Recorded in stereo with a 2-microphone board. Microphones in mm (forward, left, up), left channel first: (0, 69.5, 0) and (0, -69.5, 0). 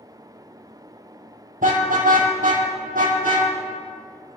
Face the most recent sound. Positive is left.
turn(degrees=-80)